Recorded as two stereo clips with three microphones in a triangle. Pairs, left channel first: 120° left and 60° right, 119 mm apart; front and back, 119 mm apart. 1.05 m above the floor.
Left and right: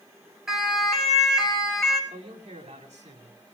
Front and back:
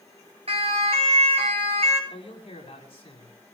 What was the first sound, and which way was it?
A siren, 150° right.